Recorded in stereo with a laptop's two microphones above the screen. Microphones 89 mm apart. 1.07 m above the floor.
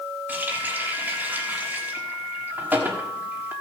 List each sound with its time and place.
0.3 s a running tap: 20° right (ahead or behind), 1.3 m